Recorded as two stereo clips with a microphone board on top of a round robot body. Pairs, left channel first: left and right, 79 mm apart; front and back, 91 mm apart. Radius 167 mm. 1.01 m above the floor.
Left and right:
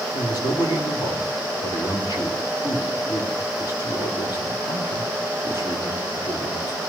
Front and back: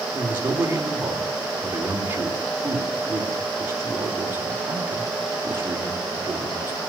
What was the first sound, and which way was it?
A man speaking, 115° left.